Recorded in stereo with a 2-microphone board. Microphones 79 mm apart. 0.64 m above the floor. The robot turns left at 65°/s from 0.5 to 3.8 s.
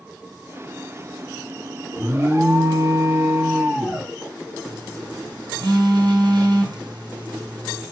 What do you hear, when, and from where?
2.0 s an alarm: 35° right, 1.0 m; by 4.1 s 155° right, 1.0 m
4.7 s a phone buzzing: 65° right (ahead or behind), 3.5 m